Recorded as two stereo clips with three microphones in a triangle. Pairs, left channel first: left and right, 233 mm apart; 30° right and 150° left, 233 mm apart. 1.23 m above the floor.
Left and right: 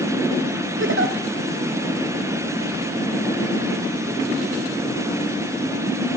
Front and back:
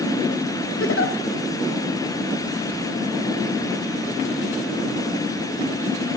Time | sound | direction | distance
0.8 | a giggle | 55° right | 0.9 m